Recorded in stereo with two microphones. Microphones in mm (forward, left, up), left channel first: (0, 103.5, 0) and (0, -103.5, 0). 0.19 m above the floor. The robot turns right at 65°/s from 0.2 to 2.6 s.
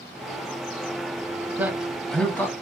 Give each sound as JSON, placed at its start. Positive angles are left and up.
{"t": 1.6, "sound": "a man speaking", "side_deg": -10, "distance_m": 1.0}